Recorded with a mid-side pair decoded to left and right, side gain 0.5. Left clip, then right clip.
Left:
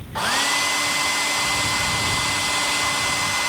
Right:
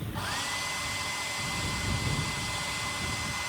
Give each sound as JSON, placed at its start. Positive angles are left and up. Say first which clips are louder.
{"t": 0.1, "sound": "a hair dryer", "louder": "left 12 dB", "azimuth_deg": 65}